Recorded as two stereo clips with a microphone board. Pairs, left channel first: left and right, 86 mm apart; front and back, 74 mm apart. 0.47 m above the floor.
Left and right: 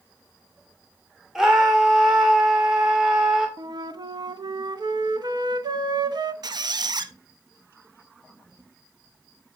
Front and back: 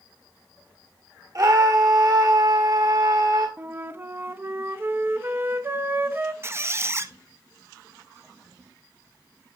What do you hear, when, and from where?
1.4 s a scream: 175° right, 1.4 m
3.6 s a flute: 120° right, 0.7 m
6.4 s a squeak: 125° right, 0.8 m